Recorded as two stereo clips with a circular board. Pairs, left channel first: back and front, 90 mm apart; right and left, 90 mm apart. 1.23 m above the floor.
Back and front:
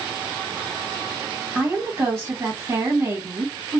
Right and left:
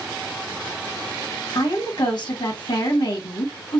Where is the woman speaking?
65° right, 1.5 m.